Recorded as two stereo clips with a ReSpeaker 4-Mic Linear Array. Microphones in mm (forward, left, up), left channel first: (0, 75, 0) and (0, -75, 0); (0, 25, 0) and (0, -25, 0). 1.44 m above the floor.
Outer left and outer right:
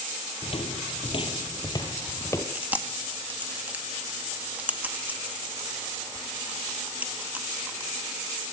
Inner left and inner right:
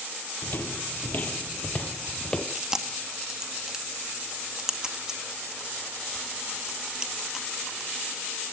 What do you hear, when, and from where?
0.4 s footsteps: 45° left (ahead or behind), 2 m; by 2.5 s 20° left (ahead or behind), 2.0 m
2.5 s chewing: 10° right (ahead or behind), 2 m